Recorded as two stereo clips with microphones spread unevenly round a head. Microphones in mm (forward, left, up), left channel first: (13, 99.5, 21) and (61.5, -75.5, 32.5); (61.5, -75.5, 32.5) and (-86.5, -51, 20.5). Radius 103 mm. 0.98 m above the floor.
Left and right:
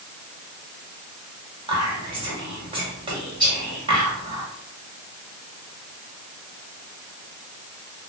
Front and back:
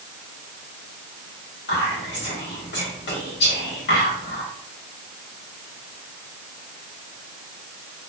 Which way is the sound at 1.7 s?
10° right.